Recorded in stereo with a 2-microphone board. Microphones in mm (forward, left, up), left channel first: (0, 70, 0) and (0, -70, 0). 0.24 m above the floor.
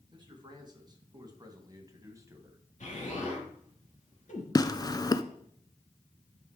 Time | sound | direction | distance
0.1 | a man speaking | 30° right (ahead or behind) | 3 m
2.8 | an explosion | 60° left (ahead or behind) | 3.5 m
4.5 | tearing paper | 25° left (ahead or behind) | 0.5 m